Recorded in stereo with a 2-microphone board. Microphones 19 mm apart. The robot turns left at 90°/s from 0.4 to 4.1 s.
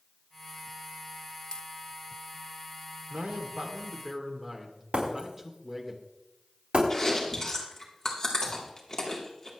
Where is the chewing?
25° left (ahead or behind), 3 m.